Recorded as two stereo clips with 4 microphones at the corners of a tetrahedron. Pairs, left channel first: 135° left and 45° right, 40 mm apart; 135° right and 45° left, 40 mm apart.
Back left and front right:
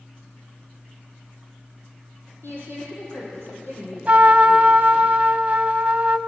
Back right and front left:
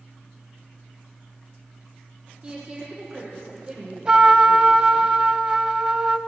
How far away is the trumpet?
About 0.8 m.